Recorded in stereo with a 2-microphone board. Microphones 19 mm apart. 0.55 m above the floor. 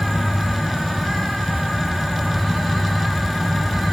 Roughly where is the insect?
Centre.